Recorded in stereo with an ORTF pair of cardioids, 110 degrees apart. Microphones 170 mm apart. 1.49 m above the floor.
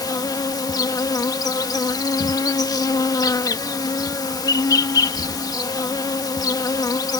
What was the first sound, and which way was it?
An insect, 20° left.